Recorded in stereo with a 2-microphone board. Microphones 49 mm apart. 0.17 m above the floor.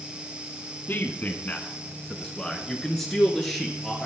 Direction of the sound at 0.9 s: 40° left (ahead or behind).